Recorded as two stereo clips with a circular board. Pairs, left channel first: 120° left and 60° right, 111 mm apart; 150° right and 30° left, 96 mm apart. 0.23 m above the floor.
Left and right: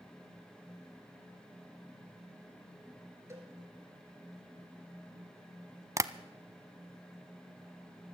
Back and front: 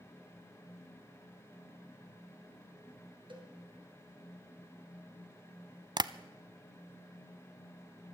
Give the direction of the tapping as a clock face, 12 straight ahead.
12 o'clock.